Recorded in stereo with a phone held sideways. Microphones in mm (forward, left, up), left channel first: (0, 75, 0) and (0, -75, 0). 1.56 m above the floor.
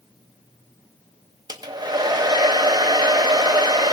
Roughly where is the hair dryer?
Right.